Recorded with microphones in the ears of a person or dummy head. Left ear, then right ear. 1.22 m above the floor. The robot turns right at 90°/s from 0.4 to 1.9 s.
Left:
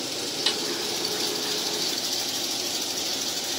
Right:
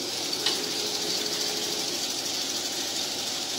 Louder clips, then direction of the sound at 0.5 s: Left 2 dB; 10° left (ahead or behind).